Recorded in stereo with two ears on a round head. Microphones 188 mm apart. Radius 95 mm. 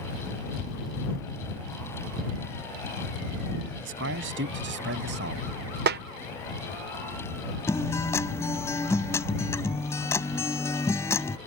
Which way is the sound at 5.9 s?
50° right (ahead or behind).